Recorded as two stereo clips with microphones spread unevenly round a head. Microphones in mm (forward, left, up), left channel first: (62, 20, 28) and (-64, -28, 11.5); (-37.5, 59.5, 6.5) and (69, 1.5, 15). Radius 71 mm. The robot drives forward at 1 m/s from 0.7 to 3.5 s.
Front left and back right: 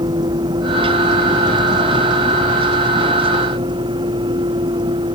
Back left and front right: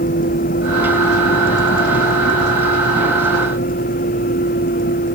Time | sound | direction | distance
0.0 | a vehicle | 135° left | ?